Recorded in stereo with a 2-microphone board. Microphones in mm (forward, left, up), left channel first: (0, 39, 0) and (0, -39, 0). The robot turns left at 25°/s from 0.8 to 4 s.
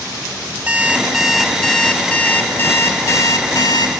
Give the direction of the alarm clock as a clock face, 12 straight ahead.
5 o'clock.